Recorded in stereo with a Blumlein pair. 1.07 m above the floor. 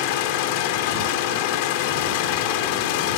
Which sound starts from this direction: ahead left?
An engine running, at 0.0 s.